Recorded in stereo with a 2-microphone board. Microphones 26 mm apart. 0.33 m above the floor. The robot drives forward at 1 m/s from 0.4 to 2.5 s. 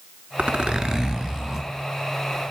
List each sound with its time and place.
0.4 s a zipper: 55° right (ahead or behind), 0.6 m; by 1.7 s 20° right (ahead or behind), 1.7 m